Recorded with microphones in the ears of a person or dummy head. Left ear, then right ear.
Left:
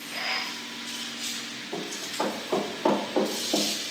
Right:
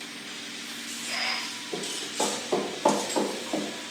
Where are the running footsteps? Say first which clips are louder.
Left 1 dB; centre (ahead or behind), 3.5 m; by 3.7 s 20° right (ahead or behind), 3 m.